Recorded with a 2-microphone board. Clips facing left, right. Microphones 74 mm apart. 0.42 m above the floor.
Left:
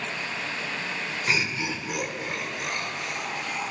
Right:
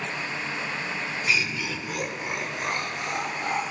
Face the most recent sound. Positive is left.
turn(degrees=-50)  # may be behind; listen again after turning